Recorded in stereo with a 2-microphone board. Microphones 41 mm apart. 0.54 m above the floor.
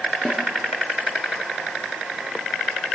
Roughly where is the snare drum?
Left.